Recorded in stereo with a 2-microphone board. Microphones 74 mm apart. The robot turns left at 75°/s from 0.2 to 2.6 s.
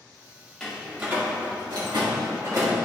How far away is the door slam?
About 1.8 m.